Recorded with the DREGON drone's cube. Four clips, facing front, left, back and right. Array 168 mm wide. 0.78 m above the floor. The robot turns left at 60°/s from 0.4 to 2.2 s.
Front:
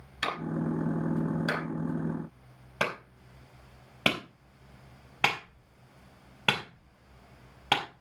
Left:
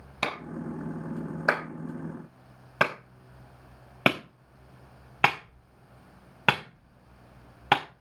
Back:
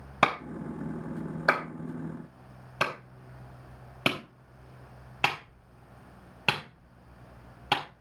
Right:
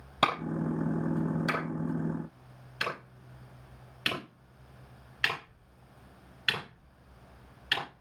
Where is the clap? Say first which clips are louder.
Right 5 dB, back 4 dB; 165° right, 4.5 m; by 7.8 s 90° left, 4.5 m.